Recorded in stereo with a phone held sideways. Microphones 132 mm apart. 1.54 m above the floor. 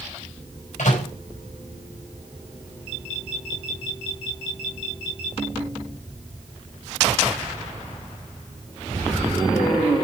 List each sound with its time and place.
0.8 s a microwave: 65° left (ahead or behind), 5.5 m